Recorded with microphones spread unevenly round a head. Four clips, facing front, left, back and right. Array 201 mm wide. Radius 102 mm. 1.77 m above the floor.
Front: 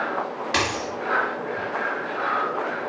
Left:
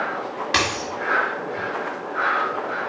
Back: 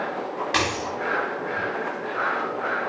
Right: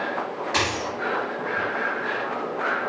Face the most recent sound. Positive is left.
turn(degrees=100)